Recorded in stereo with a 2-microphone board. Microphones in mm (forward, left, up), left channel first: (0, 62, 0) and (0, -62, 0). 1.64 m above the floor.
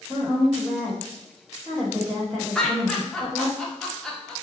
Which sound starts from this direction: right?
A woman speaking, at 0.1 s.